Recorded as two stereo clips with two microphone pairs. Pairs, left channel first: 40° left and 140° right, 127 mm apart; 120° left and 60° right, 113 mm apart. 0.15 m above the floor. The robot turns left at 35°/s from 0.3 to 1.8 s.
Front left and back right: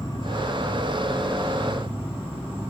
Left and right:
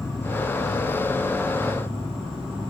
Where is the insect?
10° right, 3.5 m; by 2.7 s 65° right, 3.5 m.